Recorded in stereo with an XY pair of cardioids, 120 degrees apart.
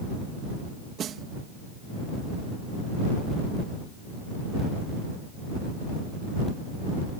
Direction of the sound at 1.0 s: 55° right.